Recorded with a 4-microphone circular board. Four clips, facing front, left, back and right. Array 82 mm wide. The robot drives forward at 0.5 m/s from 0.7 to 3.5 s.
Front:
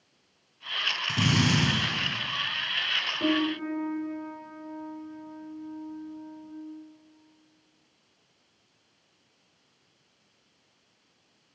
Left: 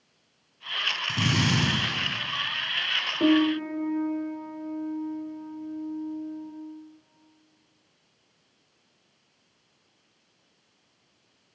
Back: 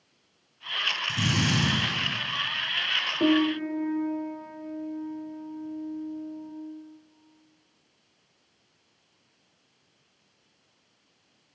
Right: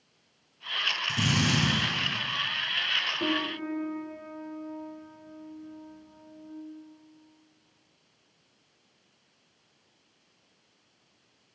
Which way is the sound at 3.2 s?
140° left.